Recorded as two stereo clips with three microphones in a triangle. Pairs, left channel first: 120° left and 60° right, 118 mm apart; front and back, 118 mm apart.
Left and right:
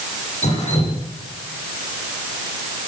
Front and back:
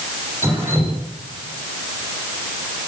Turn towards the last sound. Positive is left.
turn(degrees=110)